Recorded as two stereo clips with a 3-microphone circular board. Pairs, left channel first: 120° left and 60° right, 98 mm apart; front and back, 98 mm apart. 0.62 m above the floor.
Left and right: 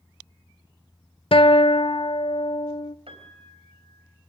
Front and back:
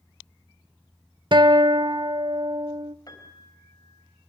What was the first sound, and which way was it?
A guitar, 145° left.